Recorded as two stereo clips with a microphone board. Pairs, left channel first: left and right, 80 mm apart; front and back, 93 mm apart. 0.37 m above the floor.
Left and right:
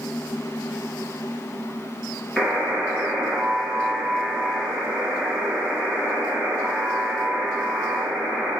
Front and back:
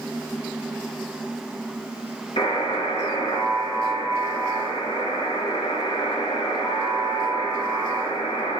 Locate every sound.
2.4 s a buzzer: 10° right, 2.5 m